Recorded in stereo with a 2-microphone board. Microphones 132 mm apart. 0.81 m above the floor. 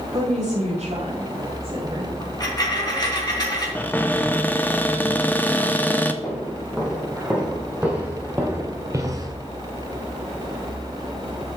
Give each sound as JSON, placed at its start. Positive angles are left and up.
{"t": 0.1, "sound": "a woman speaking", "side_deg": -75, "distance_m": 3.5}
{"t": 2.2, "sound": "a dropped coin", "side_deg": 35, "distance_m": 2.5}
{"t": 3.8, "sound": "a cupboard door", "side_deg": 15, "distance_m": 0.5}
{"t": 6.2, "sound": "footsteps", "side_deg": 0, "distance_m": 3.5}